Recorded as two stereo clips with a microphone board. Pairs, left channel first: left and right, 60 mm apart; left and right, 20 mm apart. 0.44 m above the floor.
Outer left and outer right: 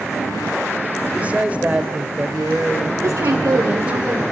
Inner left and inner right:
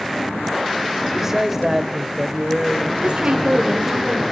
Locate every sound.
1.1 s a man speaking: 20° right (ahead or behind), 1.4 m
3.0 s a woman speaking: 55° right (ahead or behind), 1.8 m